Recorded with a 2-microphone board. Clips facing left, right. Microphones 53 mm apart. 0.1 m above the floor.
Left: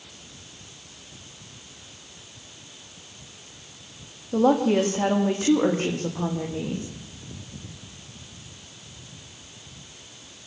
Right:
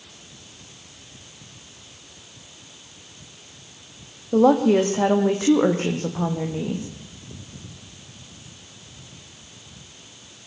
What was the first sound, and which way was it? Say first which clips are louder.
A woman speaking: right 4 dB; 60° right (ahead or behind).